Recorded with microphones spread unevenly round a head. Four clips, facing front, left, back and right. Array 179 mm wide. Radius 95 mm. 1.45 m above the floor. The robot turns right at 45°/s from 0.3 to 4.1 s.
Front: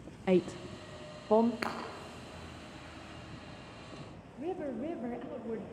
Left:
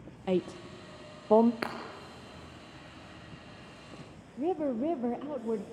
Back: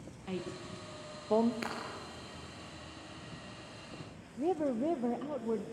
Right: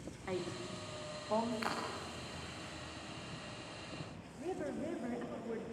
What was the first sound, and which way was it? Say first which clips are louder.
A woman speaking: left 10 dB, front 12 dB; 40° left.